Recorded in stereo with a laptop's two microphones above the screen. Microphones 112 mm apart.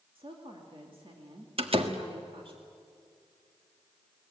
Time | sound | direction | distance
0.1 | a woman speaking | 55° right (ahead or behind) | 2.5 m
1.6 | a door slam | 55° right (ahead or behind) | 1.6 m